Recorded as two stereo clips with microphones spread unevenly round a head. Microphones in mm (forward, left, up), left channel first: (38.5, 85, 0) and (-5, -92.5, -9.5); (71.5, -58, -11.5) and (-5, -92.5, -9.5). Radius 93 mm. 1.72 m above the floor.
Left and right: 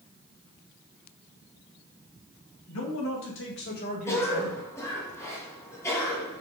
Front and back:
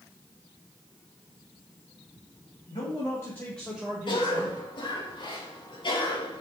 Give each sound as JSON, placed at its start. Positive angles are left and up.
{"t": 2.7, "sound": "a man speaking", "azimuth_deg": 85, "distance_m": 3.0}
{"t": 4.1, "sound": "a cough", "azimuth_deg": 0, "distance_m": 2.5}